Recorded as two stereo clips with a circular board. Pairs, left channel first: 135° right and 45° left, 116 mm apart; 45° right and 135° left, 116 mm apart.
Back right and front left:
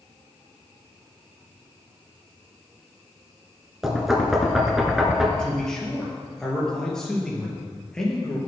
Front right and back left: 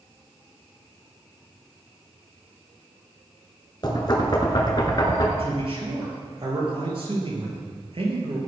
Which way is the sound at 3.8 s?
40° right.